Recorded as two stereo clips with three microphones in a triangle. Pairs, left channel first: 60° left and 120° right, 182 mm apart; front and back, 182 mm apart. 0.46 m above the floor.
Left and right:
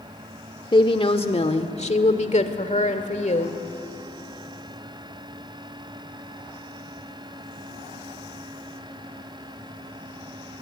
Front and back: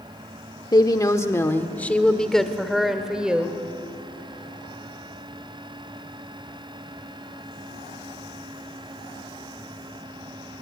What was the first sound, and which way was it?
A woman speaking, 40° left.